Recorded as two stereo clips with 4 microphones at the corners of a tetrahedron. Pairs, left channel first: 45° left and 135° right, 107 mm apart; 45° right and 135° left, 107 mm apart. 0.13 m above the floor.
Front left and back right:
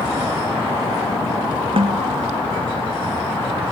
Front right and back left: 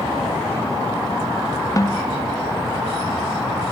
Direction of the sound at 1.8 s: 105° right.